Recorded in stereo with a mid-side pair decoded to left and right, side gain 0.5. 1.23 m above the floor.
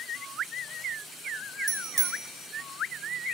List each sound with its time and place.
1.7 s a bicycle bell: 55° right, 2.5 m